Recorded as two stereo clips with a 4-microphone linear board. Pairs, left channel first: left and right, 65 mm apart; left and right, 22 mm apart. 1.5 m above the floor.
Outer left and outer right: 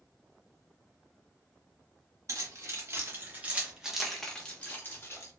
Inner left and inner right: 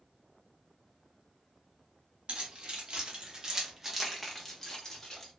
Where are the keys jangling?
55° right (ahead or behind), 1.1 m; by 5.3 s 40° left (ahead or behind), 0.9 m.